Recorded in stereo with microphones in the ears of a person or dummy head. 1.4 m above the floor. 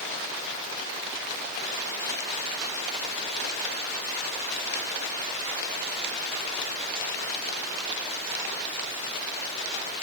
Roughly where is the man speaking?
I don't hear a man speaking.